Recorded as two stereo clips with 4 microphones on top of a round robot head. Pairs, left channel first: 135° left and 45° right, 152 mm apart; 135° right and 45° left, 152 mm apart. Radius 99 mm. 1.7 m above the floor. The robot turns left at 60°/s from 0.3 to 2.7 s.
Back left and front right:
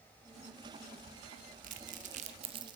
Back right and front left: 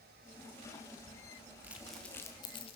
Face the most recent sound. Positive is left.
turn(degrees=-95)